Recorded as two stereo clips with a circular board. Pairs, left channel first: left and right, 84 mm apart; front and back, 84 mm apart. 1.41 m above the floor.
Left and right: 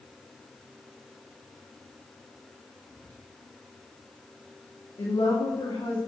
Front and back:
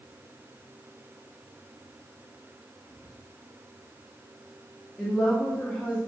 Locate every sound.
2.9 s whispering: 40° right, 1.5 m
5.0 s a woman speaking: 80° left, 2.5 m